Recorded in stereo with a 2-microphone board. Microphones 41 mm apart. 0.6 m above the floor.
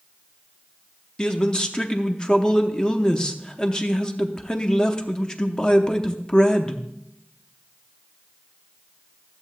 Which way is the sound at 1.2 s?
20° left (ahead or behind).